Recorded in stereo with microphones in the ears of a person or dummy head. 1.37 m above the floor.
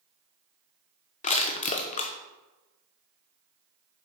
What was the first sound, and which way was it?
Crushing, 35° left (ahead or behind).